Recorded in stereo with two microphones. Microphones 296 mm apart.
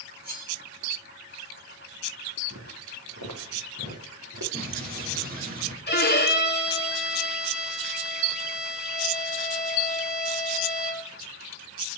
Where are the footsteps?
70° right (ahead or behind), 3.5 m; by 4.4 s 85° right, 4 m.